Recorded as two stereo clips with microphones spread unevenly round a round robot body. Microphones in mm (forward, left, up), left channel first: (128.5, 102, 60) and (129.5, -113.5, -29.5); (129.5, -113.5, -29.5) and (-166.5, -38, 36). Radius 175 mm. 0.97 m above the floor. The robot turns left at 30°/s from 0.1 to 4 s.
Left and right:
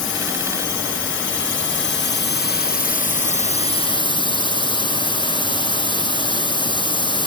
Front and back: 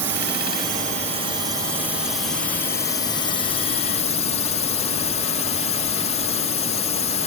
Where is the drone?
120° left; by 7.3 s straight ahead.